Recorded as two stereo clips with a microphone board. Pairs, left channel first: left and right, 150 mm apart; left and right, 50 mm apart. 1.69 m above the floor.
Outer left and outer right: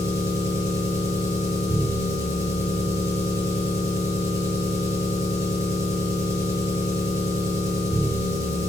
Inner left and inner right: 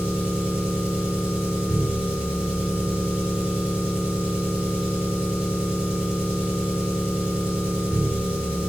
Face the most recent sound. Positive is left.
turn(degrees=-20)  # may be behind; listen again after turning